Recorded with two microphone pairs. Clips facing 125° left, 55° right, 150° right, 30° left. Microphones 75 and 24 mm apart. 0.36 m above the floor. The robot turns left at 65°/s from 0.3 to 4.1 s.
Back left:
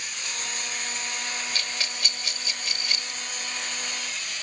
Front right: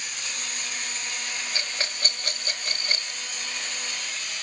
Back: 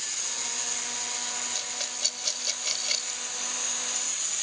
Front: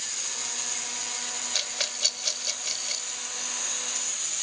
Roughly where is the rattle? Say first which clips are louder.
Even, front 4 dB; ahead.